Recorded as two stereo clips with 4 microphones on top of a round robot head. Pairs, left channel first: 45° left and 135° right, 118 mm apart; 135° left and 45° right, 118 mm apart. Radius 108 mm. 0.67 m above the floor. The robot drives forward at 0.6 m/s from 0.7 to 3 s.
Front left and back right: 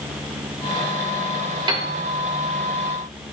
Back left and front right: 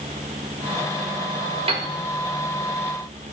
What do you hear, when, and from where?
1.7 s a piano: 85° right, 1.5 m; by 1.9 s 90° right, 1.5 m